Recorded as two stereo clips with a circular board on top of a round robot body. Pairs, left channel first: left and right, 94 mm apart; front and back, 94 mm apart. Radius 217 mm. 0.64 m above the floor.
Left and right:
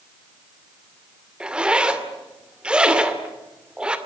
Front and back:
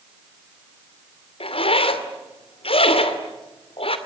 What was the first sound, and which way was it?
A zipper, 10° right.